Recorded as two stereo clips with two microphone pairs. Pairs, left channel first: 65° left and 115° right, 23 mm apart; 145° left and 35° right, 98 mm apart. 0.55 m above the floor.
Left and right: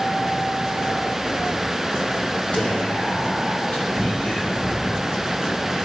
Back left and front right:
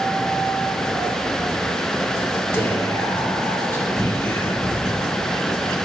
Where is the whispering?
85° left, 2.5 m.